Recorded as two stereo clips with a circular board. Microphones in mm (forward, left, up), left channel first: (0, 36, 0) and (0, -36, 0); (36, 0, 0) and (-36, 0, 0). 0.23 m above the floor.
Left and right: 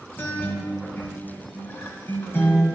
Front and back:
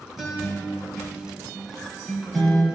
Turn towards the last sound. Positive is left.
turn(degrees=85)